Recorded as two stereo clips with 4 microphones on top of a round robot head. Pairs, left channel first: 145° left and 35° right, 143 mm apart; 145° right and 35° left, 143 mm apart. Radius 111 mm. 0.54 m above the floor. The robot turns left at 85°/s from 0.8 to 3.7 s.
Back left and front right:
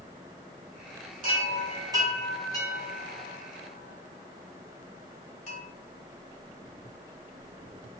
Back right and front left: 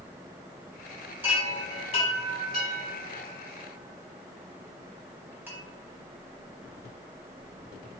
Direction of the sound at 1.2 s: 40° right.